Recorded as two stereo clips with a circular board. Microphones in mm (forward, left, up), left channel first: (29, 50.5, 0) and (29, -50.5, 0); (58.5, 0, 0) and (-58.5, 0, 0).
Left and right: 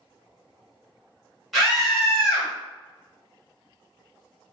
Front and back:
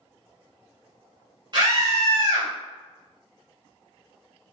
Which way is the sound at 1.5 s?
Straight behind.